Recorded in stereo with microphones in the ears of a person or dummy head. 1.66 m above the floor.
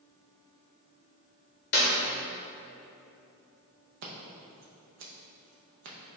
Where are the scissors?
55° right (ahead or behind), 0.6 m.